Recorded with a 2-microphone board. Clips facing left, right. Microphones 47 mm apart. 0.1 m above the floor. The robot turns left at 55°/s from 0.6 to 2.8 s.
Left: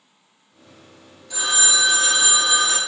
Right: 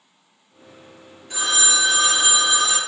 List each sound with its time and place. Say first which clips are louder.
1.3 s a phone ringing: even; 120° right, 1.2 m; by 2.8 s 155° left, 1.2 m